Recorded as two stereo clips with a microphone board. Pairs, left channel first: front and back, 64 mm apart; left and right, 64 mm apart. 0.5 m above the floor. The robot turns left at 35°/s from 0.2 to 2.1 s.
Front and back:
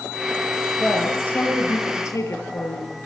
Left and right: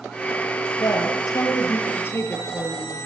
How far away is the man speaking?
About 9 m.